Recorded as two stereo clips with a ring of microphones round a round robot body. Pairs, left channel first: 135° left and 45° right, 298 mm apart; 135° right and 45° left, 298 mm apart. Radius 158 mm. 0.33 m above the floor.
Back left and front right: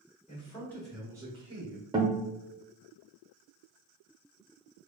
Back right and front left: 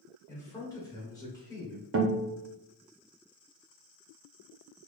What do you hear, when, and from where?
0.3 s a man speaking: 160° left, 1.0 m; by 1.8 s 65° right, 1.1 m
1.9 s a guitar: 25° left, 0.8 m